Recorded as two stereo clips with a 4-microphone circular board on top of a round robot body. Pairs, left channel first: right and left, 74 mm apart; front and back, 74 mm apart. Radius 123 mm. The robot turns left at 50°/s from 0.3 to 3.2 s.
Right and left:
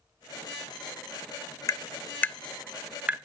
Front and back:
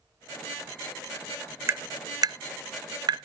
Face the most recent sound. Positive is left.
turn(degrees=155)